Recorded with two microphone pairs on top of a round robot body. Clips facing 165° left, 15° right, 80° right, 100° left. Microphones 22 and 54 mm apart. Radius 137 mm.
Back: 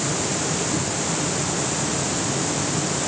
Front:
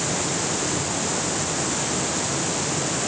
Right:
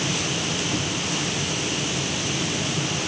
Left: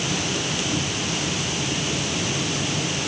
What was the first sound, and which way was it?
Only background noise.